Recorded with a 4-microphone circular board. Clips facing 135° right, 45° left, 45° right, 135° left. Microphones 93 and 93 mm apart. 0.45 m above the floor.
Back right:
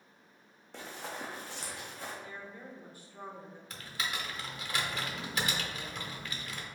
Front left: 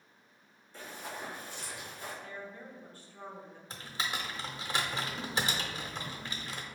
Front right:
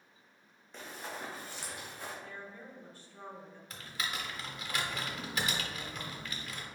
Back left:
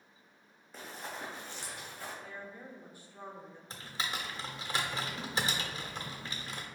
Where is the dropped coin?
No dropped coin in this recording.